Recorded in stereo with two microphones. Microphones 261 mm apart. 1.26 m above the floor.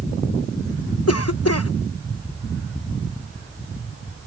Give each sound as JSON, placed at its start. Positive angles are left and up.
{"t": 1.1, "sound": "a cough", "side_deg": 65}